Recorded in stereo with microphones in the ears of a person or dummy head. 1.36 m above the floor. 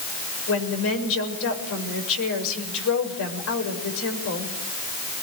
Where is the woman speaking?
75° left (ahead or behind), 6.5 m.